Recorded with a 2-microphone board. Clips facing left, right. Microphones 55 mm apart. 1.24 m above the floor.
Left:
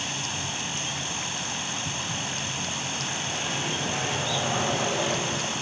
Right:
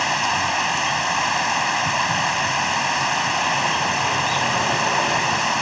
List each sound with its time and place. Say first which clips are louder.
0.0 s running water: right 13 dB; 65° right (ahead or behind)